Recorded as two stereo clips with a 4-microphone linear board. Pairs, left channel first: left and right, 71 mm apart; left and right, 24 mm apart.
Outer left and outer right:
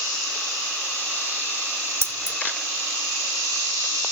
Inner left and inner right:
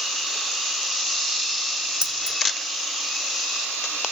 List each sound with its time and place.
2.0 s keys jangling: 40° right (ahead or behind), 1.0 m